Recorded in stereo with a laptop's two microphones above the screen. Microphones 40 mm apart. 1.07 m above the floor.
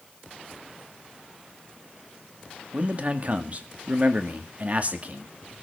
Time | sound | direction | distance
2.7 | a man speaking | 40° right (ahead or behind) | 2 m